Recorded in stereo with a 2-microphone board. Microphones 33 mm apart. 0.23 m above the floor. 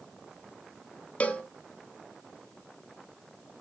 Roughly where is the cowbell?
Left.